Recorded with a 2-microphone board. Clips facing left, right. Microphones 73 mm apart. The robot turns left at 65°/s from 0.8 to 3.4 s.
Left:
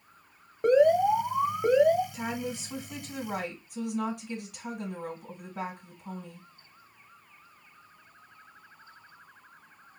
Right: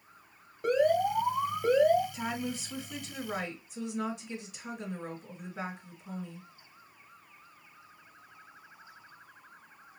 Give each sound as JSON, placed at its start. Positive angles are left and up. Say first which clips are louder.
{"t": 0.6, "sound": "an alarm", "louder": "left 5 dB", "side_deg": 30, "distance_m": 1.3}
{"t": 2.1, "sound": "a woman speaking", "louder": "left 1 dB", "azimuth_deg": 180, "distance_m": 2.0}